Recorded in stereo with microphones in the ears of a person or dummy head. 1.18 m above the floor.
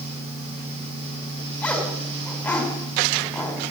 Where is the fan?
40° right (ahead or behind), 9 m.